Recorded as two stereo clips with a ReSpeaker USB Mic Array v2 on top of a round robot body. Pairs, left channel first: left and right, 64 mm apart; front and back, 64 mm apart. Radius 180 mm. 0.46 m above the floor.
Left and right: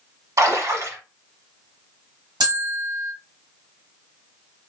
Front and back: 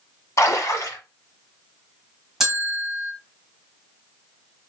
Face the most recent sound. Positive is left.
turn(degrees=-95)